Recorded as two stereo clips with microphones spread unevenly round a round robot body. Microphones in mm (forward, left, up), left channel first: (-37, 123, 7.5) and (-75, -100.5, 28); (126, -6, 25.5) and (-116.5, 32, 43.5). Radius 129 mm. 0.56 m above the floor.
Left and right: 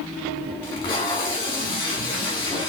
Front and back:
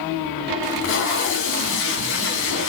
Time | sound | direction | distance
0.6 | tape being pulled | 15° left | 0.9 m